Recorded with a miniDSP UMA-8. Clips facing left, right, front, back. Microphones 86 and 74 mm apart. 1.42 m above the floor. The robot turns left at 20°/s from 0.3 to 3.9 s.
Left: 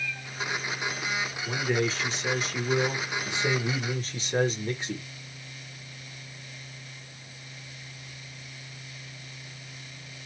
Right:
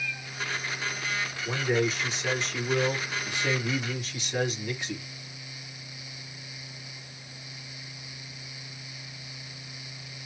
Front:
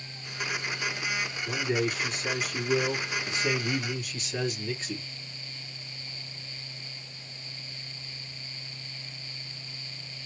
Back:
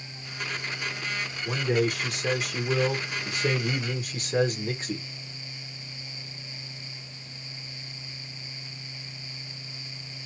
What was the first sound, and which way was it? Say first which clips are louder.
A man speaking: right 1 dB, back 4 dB; 165° right.